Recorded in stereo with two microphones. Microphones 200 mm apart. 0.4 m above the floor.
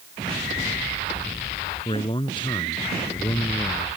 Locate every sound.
1.9 s a man speaking: 30° left (ahead or behind); by 3.9 s 15° left (ahead or behind)